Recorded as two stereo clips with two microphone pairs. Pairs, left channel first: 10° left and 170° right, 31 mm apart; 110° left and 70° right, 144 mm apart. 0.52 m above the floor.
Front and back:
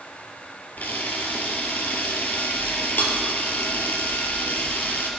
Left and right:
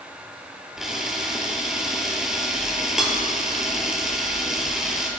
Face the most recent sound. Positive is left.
turn(degrees=20)